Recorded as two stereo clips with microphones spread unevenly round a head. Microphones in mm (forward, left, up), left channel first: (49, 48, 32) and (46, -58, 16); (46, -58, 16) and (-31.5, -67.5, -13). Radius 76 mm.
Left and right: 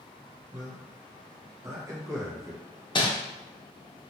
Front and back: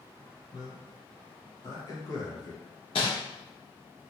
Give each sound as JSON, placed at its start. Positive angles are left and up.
{"t": 0.5, "sound": "a man speaking", "azimuth_deg": -30, "distance_m": 1.0}
{"t": 3.0, "sound": "crumpling", "azimuth_deg": 40, "distance_m": 0.7}